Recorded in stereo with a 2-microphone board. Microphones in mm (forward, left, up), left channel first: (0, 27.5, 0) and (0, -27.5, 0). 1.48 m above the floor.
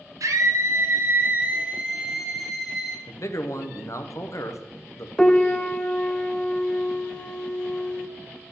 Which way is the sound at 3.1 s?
65° left (ahead or behind).